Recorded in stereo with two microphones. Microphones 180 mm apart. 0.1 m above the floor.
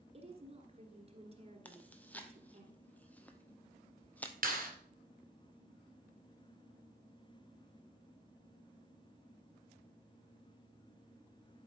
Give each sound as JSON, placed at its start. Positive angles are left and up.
{"t": 0.1, "sound": "a woman speaking", "side_deg": -35, "distance_m": 1.5}
{"t": 1.6, "sound": "chewing", "side_deg": 10, "distance_m": 0.8}
{"t": 4.4, "sound": "a clap", "side_deg": -50, "distance_m": 2.0}